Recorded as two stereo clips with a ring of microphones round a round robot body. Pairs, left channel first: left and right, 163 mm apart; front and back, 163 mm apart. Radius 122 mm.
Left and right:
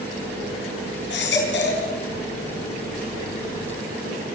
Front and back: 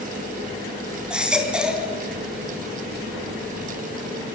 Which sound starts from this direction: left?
A baby crying, at 1.1 s.